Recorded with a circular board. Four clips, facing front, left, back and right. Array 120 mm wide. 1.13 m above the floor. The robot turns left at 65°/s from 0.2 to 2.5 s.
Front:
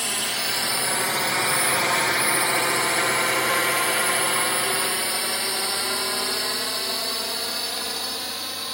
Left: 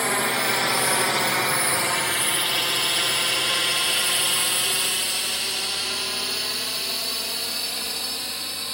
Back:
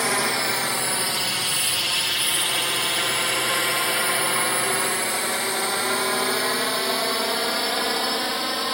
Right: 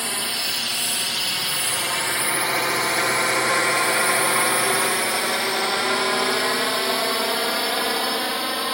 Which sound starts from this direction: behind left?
A drone, at 0.0 s.